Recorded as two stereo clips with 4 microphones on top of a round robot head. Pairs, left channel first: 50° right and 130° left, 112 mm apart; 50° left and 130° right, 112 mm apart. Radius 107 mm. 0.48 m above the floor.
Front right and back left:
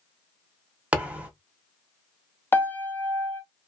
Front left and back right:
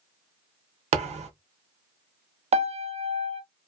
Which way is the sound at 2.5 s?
120° right.